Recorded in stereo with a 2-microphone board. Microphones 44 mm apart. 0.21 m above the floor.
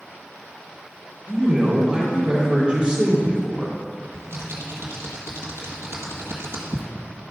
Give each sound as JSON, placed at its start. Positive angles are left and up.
{"t": 1.3, "sound": "a man speaking", "side_deg": -25, "distance_m": 3.5}
{"t": 4.1, "sound": "typing on a keyboard", "side_deg": -85, "distance_m": 1.7}